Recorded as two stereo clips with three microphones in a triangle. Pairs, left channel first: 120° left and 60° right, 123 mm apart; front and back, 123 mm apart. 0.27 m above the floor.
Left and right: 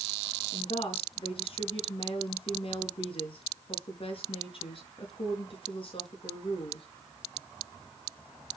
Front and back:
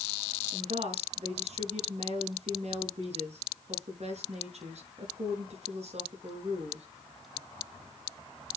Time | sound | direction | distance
0.5 | a woman speaking | 160° left | 4 m